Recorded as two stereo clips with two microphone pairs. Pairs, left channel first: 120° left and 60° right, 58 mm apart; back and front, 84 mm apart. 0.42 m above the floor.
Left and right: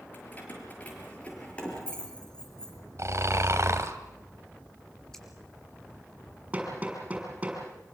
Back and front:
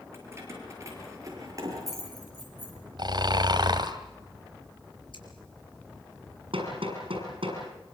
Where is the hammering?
10° left, 6.5 m.